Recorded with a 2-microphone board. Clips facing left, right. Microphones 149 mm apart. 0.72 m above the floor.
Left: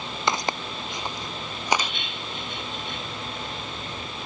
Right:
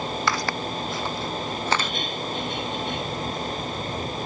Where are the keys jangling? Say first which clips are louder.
Right 6 dB; 40° right (ahead or behind).